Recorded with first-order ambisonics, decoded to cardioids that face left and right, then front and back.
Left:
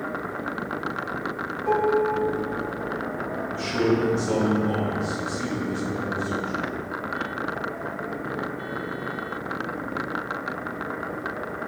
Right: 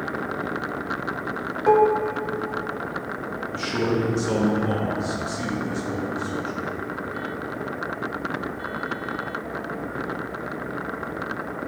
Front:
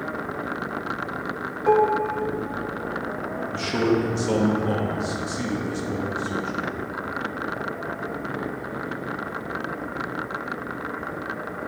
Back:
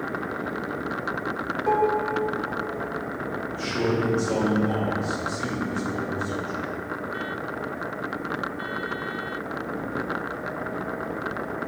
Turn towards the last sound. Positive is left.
turn(degrees=-25)